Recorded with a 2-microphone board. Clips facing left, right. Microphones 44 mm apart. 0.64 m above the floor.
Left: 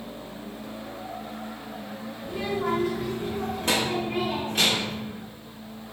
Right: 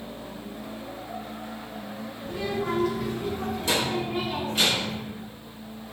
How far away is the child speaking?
About 1.2 m.